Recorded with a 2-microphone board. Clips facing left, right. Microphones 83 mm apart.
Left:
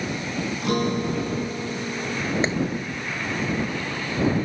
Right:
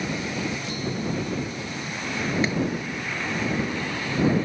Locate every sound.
0.6 s a guitar: 60° left (ahead or behind)
2.4 s a clap: 25° left (ahead or behind)